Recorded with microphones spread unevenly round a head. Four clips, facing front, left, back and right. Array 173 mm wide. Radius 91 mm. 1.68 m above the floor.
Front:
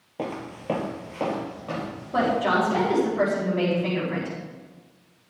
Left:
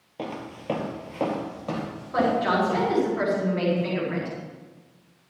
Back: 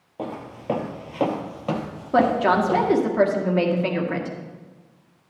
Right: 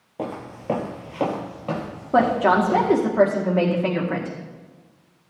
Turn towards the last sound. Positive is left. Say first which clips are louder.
# right 5 dB, back 4 dB
turn(degrees=-120)